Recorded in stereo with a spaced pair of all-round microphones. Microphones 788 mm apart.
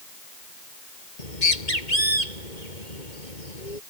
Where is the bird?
70° left (ahead or behind).